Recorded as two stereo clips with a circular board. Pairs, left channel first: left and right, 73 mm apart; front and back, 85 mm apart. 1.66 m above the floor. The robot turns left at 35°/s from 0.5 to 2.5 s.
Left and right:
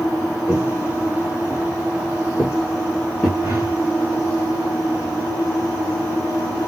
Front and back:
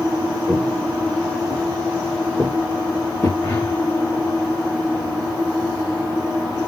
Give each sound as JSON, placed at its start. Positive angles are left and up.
{"t": 0.5, "sound": "footsteps", "azimuth_deg": -20, "distance_m": 1.9}
{"t": 3.4, "sound": "a whoosh", "azimuth_deg": -50, "distance_m": 2.0}